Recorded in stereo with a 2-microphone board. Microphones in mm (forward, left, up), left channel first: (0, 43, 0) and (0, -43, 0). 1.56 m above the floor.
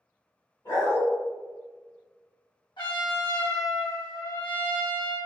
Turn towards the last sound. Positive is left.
turn(degrees=70)  # may be behind; listen again after turning